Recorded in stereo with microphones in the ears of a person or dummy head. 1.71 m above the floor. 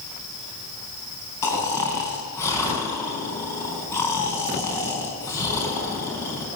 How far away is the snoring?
About 4 m.